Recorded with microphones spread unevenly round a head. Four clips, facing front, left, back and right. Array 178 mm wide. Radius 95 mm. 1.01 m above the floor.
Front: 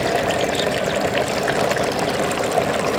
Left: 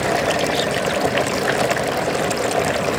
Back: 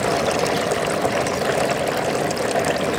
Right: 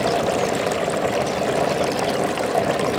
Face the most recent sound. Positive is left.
No sound to turn to.